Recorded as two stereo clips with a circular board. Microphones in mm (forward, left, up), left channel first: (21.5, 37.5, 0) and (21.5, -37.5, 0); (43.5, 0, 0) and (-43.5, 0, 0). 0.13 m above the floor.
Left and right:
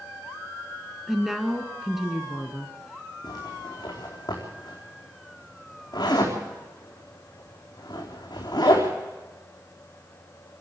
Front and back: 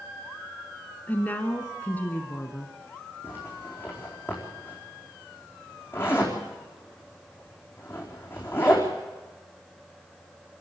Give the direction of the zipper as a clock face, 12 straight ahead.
10 o'clock.